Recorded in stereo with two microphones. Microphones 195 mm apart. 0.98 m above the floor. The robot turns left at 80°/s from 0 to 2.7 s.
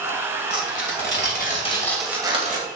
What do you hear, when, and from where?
0.5 s tearing paper: 120° left, 2 m; by 2.6 s 50° right, 2 m